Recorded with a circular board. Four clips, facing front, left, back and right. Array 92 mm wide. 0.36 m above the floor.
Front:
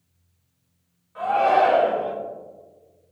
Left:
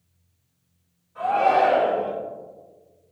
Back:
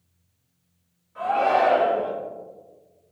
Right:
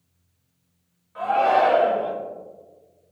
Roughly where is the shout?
Ahead right.